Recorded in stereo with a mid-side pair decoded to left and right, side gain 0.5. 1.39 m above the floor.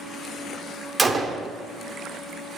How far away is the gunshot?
About 0.6 m.